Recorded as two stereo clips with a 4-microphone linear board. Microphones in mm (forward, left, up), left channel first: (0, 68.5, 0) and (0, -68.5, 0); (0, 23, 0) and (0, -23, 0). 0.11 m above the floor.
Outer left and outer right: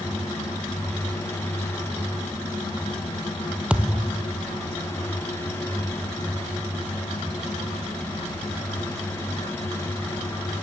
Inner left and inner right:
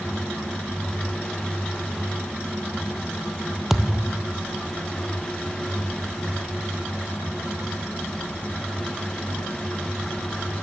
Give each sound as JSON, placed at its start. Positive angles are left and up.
{"t": 3.7, "sound": "a thud", "side_deg": -5, "distance_m": 0.8}